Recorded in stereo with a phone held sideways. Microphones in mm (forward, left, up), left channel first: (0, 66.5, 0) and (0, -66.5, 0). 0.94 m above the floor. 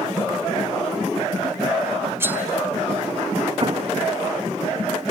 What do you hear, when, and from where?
2.2 s cutlery clinking: 15° right (ahead or behind), 1.8 m
3.6 s an explosion: 40° right (ahead or behind), 1.3 m